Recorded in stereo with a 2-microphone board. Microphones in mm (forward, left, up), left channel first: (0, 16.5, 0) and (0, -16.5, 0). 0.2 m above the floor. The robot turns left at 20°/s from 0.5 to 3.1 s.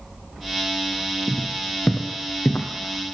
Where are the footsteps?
30° left (ahead or behind), 1.1 m; by 2.7 s 55° left (ahead or behind), 0.9 m.